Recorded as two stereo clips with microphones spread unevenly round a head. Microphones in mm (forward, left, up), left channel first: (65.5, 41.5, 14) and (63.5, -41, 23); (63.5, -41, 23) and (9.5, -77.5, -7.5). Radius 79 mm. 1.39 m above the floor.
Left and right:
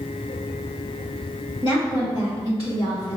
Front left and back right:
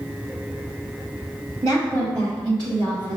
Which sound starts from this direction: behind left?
A woman speaking, at 1.6 s.